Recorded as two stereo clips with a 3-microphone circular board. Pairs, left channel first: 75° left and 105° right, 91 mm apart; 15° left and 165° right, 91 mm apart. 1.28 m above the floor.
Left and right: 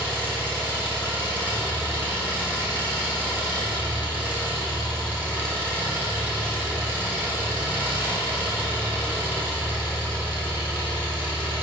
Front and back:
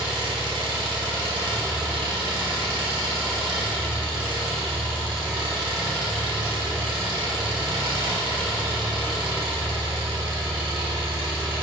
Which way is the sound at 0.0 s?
170° right.